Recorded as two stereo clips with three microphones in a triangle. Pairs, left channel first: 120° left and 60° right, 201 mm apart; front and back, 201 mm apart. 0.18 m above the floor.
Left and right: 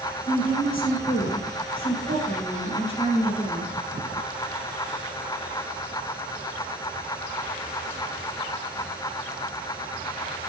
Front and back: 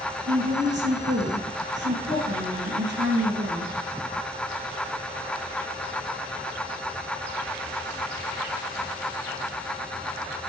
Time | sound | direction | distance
0.3 | a woman speaking | straight behind | 3 m